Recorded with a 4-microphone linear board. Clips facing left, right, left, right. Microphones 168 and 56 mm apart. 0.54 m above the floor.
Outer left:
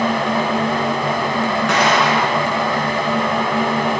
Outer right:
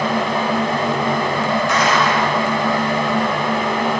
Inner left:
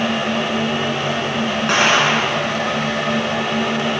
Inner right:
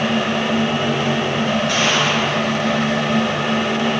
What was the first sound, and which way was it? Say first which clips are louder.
An explosion: outer left 1 dB, inner left 3 dB; 75° left (ahead or behind).